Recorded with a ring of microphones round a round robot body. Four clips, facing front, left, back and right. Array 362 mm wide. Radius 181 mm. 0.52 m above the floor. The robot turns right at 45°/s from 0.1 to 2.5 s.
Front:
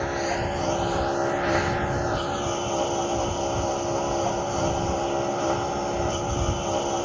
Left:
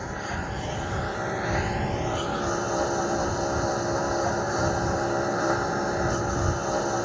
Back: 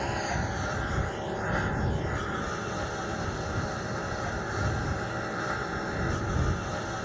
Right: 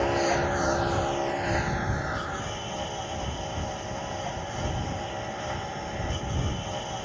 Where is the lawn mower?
70° right; by 7.1 s 40° left.